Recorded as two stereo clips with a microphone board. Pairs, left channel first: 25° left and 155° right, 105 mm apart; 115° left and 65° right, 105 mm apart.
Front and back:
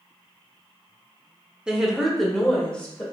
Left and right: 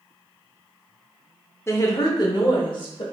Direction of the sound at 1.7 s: 130° left.